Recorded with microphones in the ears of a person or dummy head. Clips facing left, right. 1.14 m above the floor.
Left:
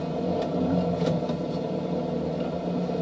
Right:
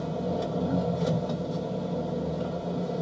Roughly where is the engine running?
Left.